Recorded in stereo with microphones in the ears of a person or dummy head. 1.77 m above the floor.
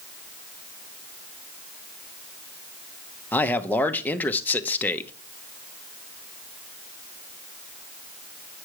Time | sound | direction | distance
3.3 | a man speaking | 5° left (ahead or behind) | 0.9 m